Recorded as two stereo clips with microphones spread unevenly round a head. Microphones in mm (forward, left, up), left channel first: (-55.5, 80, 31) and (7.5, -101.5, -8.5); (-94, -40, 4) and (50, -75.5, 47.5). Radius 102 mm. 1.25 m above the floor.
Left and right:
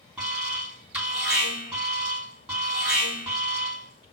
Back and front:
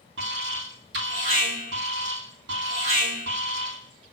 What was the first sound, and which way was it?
An alarm, 10° left.